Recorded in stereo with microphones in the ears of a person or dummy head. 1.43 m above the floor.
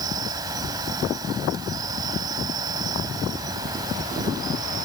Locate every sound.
0.0 s an insect: 25° right (ahead or behind)